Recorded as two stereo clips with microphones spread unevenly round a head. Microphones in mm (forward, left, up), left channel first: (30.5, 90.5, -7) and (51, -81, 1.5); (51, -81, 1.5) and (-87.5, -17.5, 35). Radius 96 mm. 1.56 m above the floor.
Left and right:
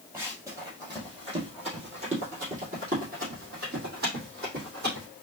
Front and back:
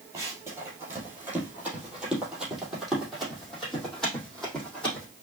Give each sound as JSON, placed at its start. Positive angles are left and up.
{"t": 0.1, "sound": "running footsteps", "azimuth_deg": -155, "distance_m": 2.0}